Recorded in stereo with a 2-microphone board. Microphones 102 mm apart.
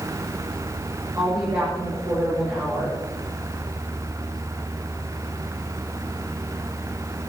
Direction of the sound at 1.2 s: 30° right (ahead or behind).